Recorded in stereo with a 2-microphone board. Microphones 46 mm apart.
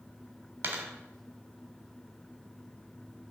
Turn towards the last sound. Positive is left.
turn(degrees=-60)  # may be behind; listen again after turning